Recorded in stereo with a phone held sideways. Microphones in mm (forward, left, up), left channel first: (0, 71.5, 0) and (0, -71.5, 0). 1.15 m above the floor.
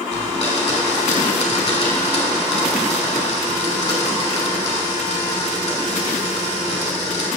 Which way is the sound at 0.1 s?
50° left (ahead or behind).